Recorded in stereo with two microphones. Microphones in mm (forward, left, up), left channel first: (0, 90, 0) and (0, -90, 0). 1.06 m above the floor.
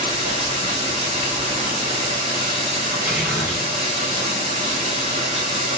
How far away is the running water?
About 2 m.